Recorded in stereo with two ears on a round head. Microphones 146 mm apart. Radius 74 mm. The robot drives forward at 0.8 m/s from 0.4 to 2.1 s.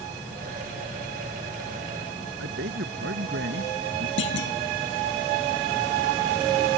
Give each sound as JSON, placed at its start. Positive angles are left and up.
{"t": 2.4, "sound": "a man speaking", "side_deg": -75}
{"t": 4.2, "sound": "a clunk", "side_deg": 80}